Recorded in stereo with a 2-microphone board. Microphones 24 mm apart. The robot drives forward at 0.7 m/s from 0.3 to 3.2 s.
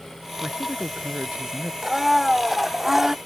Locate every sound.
0.4 s a man speaking: 45° right (ahead or behind)
1.8 s a blender: 10° right (ahead or behind); by 3.1 s 15° right (ahead or behind)